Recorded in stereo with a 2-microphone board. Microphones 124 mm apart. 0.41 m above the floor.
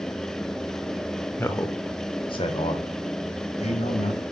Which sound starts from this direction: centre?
A man speaking, at 1.4 s.